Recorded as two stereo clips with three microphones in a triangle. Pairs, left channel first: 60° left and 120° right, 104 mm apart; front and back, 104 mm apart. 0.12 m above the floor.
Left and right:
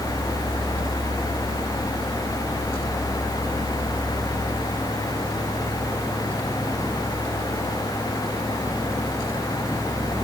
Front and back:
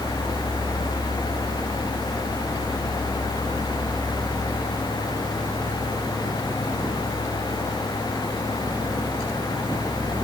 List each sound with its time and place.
Only background noise.